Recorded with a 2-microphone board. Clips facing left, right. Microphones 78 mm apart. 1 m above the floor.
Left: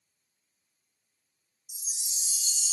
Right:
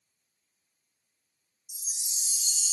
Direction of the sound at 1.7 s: Centre (ahead or behind).